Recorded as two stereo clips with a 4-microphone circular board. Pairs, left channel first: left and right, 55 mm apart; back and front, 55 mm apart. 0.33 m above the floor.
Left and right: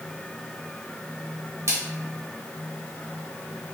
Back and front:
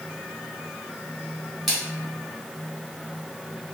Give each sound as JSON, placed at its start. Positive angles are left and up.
{"t": 1.7, "sound": "a splash", "azimuth_deg": -90, "distance_m": 2.0}